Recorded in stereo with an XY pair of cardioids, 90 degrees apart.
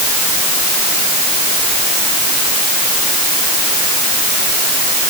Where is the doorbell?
I don't hear a doorbell.